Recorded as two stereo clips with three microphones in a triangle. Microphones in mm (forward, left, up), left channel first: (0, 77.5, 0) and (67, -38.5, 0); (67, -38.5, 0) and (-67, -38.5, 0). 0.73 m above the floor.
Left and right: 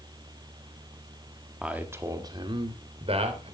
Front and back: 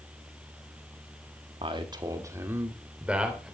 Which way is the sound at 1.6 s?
145° right.